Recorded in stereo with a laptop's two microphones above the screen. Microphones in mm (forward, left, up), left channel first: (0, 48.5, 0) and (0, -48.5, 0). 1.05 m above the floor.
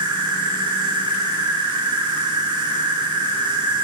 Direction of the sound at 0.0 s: 55° right (ahead or behind).